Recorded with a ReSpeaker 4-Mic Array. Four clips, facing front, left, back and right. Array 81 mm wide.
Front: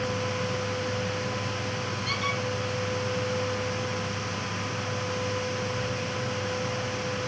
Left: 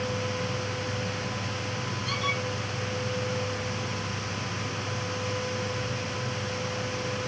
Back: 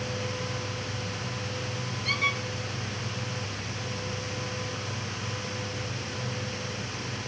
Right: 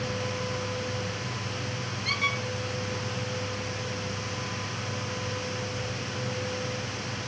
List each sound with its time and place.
2.0 s a squeak: 115° right, 7 m